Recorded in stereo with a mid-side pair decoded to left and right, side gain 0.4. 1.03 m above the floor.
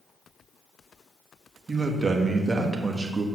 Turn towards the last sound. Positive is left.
turn(degrees=-25)